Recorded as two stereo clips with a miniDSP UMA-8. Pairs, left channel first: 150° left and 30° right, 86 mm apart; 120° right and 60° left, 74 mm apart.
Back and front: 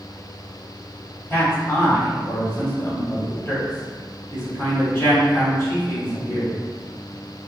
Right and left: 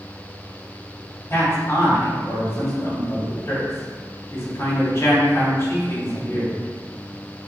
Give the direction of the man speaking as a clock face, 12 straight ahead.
5 o'clock.